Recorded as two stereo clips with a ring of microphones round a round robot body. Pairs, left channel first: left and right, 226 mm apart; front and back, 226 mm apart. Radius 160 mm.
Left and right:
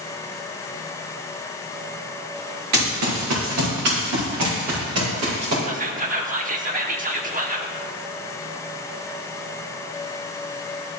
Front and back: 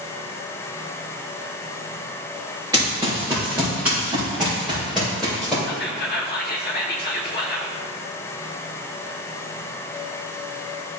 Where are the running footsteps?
100° right, 3.5 m; by 5.5 s 90° right, 4.5 m.